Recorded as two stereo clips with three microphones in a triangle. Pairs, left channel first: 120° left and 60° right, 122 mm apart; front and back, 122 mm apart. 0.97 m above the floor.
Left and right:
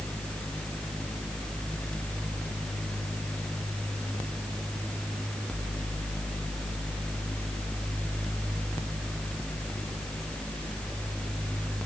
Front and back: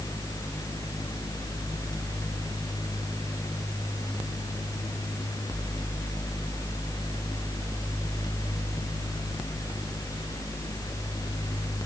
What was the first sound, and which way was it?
Only background noise.